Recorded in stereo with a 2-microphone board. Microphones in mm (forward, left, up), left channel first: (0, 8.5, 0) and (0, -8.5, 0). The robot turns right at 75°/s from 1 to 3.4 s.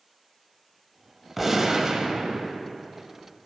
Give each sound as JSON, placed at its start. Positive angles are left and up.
{"t": 1.4, "sound": "a gunshot", "azimuth_deg": -175, "distance_m": 0.6}